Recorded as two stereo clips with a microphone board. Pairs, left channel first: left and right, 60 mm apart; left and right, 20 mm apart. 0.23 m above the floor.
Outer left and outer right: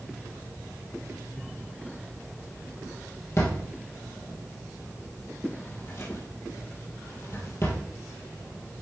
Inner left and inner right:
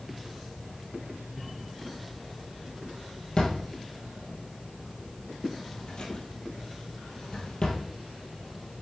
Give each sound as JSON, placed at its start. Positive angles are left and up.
{"t": 3.4, "sound": "a drawer", "side_deg": 45, "distance_m": 1.8}